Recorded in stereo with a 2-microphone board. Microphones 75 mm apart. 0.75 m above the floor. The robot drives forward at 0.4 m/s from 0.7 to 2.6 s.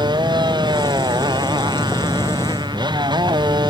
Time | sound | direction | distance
0.0 | a motorcycle | 80° right | ?